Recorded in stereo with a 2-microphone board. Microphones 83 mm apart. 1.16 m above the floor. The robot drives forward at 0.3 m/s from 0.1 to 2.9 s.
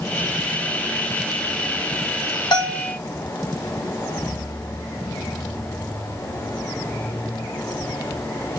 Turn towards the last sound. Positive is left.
turn(degrees=50)  # may be behind; listen again after turning